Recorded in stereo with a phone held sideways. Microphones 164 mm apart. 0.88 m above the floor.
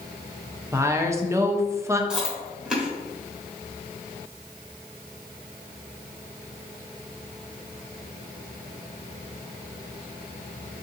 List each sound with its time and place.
0.7 s a woman speaking: 15° right (ahead or behind), 0.5 m
2.1 s chewing: 5° right (ahead or behind), 1.3 m